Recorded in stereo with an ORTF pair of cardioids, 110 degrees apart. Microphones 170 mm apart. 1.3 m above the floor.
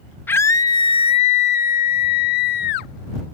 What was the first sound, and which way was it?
A scream, 10° left.